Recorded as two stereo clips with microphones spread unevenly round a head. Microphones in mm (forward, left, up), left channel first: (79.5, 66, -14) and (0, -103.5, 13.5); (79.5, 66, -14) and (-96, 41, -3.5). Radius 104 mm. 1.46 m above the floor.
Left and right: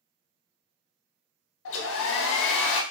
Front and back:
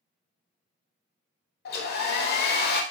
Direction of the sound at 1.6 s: 45° left.